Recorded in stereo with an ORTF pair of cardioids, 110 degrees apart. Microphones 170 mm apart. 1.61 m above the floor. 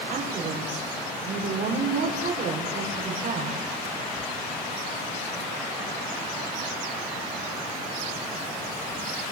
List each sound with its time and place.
0.1 s a woman speaking: 55° right, 6.5 m